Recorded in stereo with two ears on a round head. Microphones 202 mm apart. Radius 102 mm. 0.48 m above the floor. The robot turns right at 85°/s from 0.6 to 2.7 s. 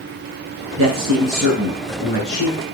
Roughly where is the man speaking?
Right.